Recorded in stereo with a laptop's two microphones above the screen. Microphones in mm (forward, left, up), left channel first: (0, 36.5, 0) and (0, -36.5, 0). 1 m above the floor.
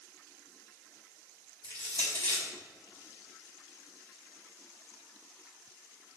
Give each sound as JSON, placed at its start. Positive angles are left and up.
{"t": 1.6, "sound": "crushing", "side_deg": -70, "distance_m": 4.0}